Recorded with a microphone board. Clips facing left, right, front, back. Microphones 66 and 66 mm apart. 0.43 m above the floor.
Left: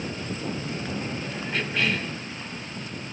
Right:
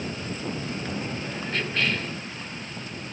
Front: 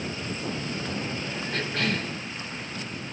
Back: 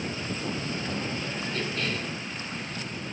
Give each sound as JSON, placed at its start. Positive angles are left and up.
{"t": 1.5, "sound": "a cough", "azimuth_deg": 10, "distance_m": 3.5}